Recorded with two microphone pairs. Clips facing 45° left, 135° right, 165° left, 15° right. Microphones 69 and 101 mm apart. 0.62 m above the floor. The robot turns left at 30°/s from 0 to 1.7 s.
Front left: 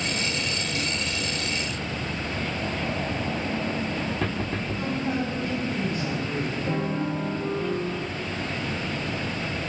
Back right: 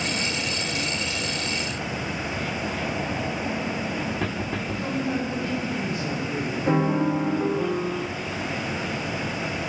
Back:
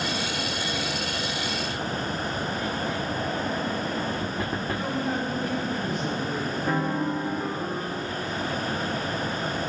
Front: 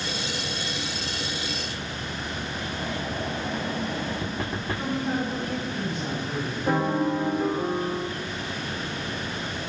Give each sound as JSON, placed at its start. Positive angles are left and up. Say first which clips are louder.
{"t": 4.7, "sound": "a woman speaking", "louder": "back right 1 dB, front 2 dB", "azimuth_deg": 85, "distance_m": 4.0}
{"t": 6.7, "sound": "a piano", "louder": "back right 9 dB, front 4 dB", "azimuth_deg": -100, "distance_m": 0.8}